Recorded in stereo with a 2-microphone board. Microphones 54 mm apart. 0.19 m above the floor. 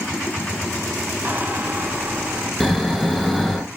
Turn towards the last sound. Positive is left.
turn(degrees=0)  # may be behind; listen again after turning